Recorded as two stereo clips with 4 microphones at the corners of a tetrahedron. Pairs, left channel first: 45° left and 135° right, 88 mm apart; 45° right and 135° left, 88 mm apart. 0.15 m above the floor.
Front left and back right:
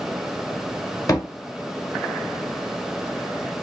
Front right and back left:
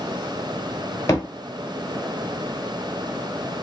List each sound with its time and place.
1.1 s a thud: 5° left, 1.2 m